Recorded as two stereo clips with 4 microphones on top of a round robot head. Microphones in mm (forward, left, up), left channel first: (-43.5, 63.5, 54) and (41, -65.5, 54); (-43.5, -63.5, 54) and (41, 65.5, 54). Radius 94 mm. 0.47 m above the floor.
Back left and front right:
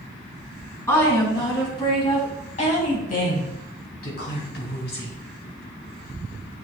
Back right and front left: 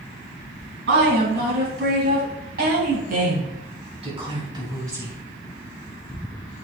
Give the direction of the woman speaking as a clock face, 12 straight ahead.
10 o'clock.